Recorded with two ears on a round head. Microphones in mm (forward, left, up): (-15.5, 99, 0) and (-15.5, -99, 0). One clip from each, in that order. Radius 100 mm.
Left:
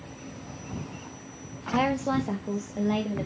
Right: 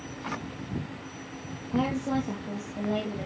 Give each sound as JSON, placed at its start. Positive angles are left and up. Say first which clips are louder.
{"t": 1.7, "sound": "a woman speaking", "louder": "left 4 dB", "side_deg": 65, "distance_m": 0.9}